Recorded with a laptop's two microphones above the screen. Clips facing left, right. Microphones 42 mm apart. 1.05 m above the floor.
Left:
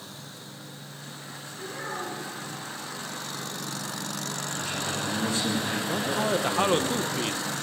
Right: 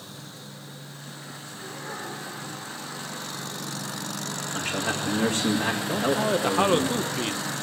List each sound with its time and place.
1.6 s a child speaking: 75° left (ahead or behind), 8 m
4.5 s a man speaking: 50° right (ahead or behind), 2.0 m
5.9 s a man speaking: 5° right (ahead or behind), 0.7 m